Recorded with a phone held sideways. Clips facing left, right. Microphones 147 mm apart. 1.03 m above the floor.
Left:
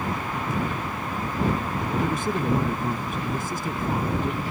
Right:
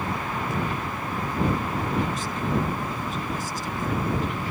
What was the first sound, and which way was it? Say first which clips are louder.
A man speaking: left 3 dB; 60° left (ahead or behind).